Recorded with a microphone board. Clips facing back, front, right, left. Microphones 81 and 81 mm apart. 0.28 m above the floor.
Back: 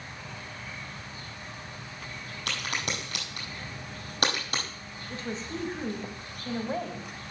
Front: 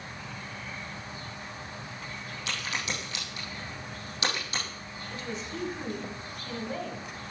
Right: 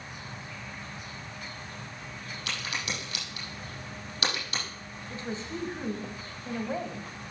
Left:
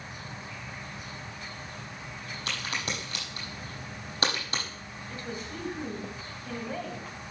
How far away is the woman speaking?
About 1.6 m.